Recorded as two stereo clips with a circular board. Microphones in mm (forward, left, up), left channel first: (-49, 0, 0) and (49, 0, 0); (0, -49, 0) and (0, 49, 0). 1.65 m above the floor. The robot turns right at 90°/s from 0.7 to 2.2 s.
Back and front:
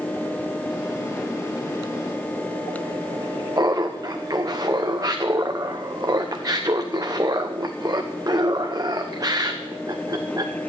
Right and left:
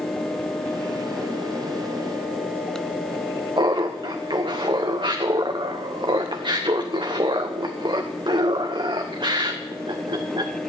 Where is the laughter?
50° left, 1.0 m.